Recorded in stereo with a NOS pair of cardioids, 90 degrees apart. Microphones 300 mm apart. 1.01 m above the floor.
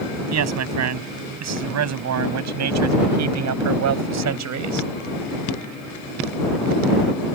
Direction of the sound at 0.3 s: 60° right.